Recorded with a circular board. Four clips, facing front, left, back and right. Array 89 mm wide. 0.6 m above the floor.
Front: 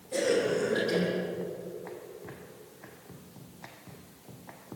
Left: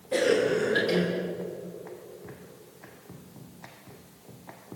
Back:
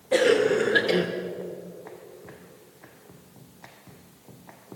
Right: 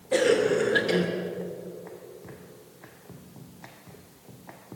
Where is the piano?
No piano in this recording.